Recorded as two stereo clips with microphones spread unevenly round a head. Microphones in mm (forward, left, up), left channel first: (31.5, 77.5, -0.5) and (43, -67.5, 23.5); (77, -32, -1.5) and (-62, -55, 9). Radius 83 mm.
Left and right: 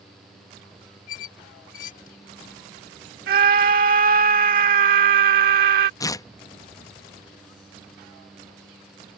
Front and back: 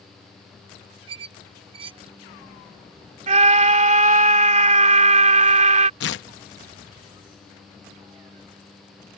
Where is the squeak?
140° left.